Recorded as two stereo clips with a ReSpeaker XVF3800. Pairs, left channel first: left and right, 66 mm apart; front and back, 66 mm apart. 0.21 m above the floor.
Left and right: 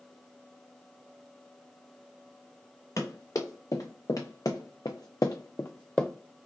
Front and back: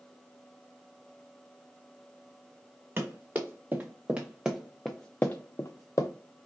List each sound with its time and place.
3.0 s running footsteps: 125° left, 1.9 m; by 6.1 s 10° left, 0.8 m